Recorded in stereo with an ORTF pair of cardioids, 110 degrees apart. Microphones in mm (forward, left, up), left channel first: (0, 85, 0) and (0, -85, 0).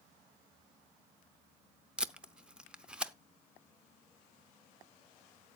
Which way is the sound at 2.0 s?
5° right.